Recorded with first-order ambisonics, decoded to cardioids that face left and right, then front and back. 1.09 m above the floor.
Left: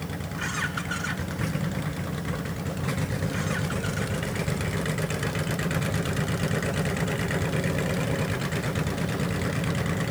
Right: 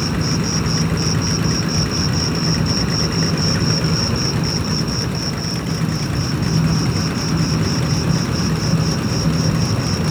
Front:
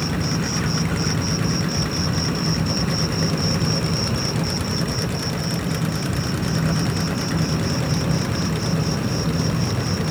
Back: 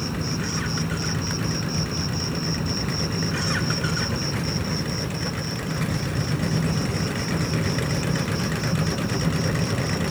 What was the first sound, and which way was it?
An insect, 80° right.